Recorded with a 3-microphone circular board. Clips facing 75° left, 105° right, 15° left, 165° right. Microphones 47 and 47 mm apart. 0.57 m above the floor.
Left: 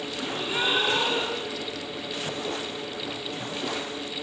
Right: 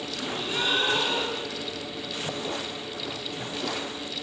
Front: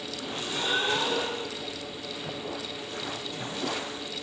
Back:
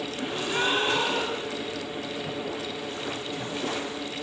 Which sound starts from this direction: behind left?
A gasp, at 0.2 s.